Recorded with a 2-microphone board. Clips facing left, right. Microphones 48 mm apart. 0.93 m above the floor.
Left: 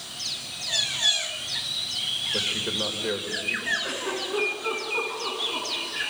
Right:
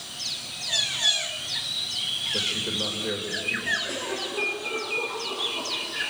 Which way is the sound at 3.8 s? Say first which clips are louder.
Left 1 dB; 75° left (ahead or behind).